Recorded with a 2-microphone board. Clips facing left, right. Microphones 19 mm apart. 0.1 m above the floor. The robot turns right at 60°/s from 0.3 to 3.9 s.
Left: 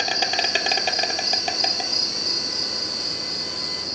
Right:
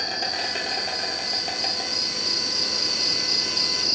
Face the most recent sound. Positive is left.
turn(degrees=-80)